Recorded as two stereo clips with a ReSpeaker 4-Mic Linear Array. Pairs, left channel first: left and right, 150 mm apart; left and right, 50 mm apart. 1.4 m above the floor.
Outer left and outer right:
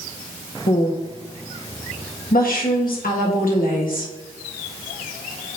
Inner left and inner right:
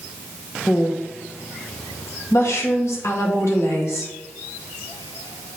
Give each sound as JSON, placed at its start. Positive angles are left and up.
{"t": 0.7, "sound": "a woman speaking", "side_deg": 75, "distance_m": 1.7}